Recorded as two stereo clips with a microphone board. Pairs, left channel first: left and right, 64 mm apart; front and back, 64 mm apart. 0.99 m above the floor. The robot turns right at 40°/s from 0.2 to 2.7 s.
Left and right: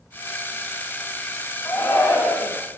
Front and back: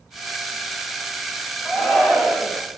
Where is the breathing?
I don't hear breathing.